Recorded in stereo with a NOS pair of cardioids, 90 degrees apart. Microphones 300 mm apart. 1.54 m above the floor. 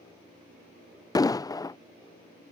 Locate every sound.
1.1 s an explosion: 15° left